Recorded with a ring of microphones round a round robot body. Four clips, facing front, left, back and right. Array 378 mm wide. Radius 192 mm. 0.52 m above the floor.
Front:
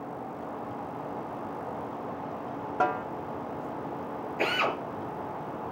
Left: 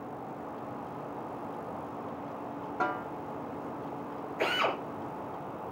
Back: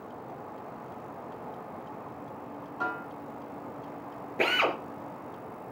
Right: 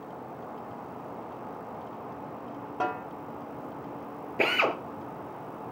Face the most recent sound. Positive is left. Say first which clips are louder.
# right 3 dB, back 1 dB
turn(degrees=-115)